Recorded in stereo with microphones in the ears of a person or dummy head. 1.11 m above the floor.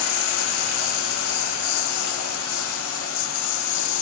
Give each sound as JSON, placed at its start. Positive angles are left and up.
{"t": 0.0, "sound": "a lawn mower", "side_deg": 85}